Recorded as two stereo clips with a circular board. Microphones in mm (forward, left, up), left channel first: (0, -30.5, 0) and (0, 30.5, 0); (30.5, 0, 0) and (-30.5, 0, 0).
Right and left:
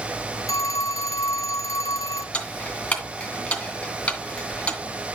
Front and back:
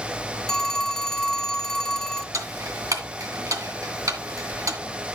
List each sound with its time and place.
0.5 s a phone ringing: 80° right, 0.6 m
2.3 s ticking: 160° right, 2 m